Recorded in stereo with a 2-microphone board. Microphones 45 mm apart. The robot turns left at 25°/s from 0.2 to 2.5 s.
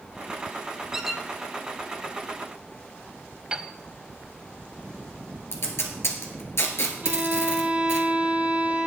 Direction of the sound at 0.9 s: 10° right (ahead or behind).